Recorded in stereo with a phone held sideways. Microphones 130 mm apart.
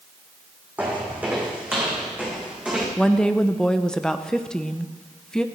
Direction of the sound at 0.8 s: 10° right (ahead or behind).